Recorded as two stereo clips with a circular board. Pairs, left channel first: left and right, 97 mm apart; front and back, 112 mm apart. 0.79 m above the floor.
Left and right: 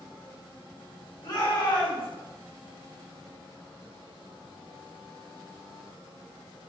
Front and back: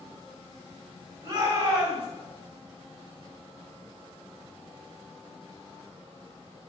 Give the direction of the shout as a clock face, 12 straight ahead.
8 o'clock.